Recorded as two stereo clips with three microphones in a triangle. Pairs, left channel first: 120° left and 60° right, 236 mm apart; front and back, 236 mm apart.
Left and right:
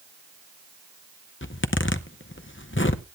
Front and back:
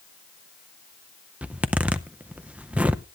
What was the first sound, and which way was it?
A zipper, 95° left.